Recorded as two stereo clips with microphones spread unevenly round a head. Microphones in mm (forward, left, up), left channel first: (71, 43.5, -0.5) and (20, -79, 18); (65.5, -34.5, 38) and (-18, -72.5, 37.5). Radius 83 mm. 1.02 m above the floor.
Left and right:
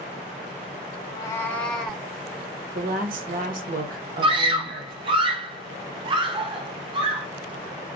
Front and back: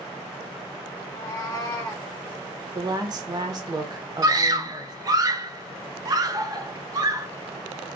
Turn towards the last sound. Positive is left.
turn(degrees=-160)